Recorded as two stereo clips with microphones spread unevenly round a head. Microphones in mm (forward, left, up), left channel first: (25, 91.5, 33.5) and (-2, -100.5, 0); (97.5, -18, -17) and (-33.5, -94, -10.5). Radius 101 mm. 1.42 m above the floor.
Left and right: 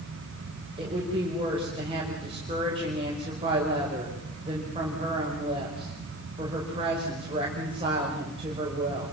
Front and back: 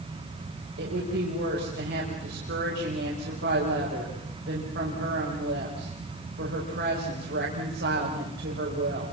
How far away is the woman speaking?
About 5.5 m.